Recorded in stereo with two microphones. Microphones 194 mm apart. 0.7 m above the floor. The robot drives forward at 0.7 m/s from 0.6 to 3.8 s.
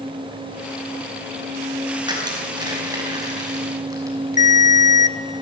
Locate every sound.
2.1 s crushing: 20° right (ahead or behind), 5 m; by 4.5 s 15° right (ahead or behind), 6 m
4.4 s a ringtone: 40° left (ahead or behind), 0.8 m